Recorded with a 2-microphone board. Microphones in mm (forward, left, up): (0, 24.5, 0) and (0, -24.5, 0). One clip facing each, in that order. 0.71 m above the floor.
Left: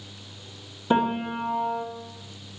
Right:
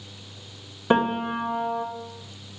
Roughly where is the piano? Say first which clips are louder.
Right 2 dB; right.